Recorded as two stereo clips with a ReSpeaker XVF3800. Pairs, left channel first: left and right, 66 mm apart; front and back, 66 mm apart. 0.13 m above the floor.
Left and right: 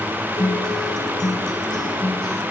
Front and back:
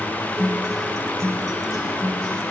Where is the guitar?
85° left, 8 m.